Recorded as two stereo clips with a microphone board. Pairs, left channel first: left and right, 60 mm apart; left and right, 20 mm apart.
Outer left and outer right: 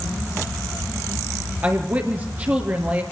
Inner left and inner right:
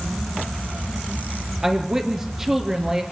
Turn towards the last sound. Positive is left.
turn(degrees=-35)  # may be behind; listen again after turning